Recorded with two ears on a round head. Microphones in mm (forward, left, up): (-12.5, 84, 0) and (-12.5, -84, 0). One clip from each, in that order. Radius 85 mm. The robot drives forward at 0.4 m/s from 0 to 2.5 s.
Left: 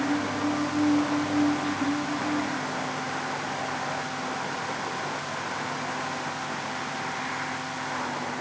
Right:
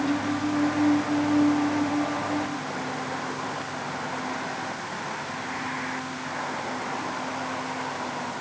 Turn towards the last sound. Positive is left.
No sound to turn to.